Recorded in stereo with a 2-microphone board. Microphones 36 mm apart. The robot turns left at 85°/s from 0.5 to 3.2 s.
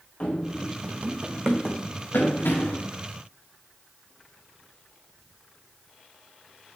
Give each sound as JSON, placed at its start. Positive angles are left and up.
{"t": 0.2, "sound": "running footsteps", "side_deg": 35, "distance_m": 1.0}